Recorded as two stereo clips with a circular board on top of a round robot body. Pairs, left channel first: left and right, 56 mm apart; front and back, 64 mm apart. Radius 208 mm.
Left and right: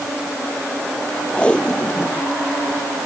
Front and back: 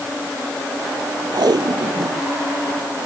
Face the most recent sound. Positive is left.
turn(degrees=165)